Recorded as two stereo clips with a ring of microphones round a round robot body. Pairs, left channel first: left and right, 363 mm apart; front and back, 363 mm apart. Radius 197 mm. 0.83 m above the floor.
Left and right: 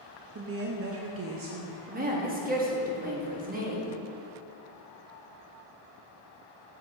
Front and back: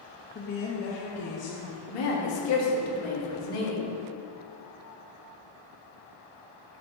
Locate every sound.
0.3 s a woman speaking: 50° right, 0.5 m
1.9 s a woman speaking: 25° right, 1.2 m